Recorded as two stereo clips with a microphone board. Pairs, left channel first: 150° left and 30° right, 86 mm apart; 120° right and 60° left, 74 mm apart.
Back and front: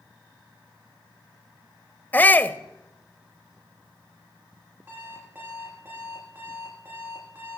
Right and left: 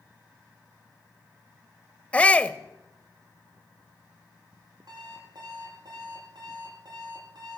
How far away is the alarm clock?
About 9 m.